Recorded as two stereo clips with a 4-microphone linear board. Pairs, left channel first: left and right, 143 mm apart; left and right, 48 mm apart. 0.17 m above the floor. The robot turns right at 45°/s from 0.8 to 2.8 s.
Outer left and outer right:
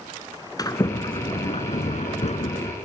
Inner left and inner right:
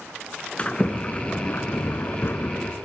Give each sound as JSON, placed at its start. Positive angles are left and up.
{"t": 0.6, "sound": "a sliding door", "azimuth_deg": 35, "distance_m": 1.1}